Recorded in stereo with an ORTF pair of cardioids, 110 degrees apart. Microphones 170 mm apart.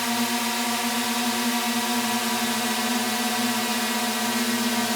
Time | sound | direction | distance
0.0 | a drone | straight ahead | ?